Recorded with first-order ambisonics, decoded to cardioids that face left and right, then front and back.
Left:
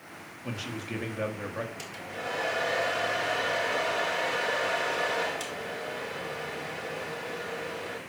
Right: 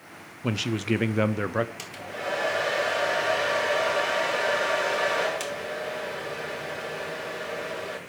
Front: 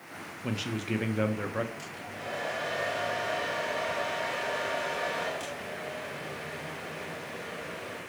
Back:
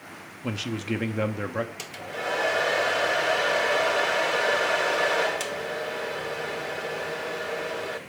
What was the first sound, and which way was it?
A man speaking, 100° right.